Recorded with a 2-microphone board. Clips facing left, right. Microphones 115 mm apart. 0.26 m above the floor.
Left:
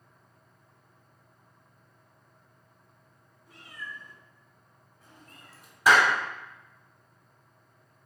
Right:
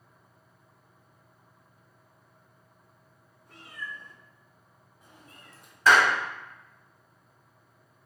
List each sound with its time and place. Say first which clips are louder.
3.5 s a cat meowing: right 2 dB; 65° right (ahead or behind), 1.4 m; by 5.7 s 10° left (ahead or behind), 1.0 m
5.9 s a clap: even; 15° left (ahead or behind), 1.2 m